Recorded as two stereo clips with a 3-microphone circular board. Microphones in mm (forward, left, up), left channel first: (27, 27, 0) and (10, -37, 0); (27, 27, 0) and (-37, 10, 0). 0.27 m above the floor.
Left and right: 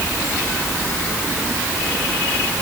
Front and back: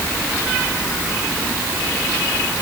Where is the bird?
I don't hear a bird.